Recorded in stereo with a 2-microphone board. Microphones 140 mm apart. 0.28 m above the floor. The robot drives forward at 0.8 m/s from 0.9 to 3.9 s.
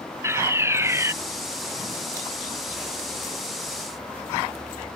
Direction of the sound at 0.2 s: 20° right (ahead or behind).